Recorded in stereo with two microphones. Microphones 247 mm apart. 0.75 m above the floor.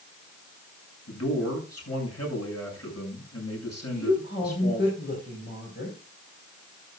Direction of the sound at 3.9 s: 45° left (ahead or behind).